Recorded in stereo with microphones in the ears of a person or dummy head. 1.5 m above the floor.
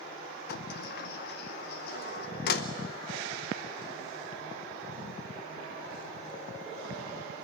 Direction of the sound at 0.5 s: 65° left (ahead or behind).